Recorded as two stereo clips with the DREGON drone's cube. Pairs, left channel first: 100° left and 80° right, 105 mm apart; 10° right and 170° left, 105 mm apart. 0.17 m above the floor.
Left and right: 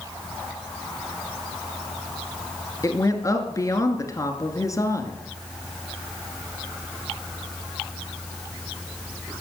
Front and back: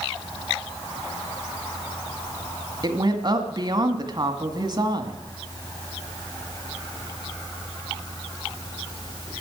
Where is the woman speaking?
145° left, 1.5 m.